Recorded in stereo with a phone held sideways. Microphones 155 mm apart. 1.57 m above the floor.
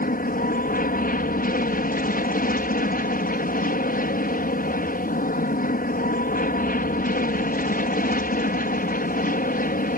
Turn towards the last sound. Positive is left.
turn(degrees=65)  # may be behind; listen again after turning